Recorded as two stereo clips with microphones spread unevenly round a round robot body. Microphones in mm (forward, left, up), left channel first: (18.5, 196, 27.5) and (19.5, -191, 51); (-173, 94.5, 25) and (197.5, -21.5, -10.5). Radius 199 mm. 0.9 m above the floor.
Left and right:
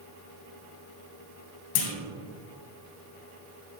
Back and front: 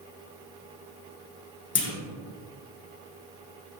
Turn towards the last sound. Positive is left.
turn(degrees=100)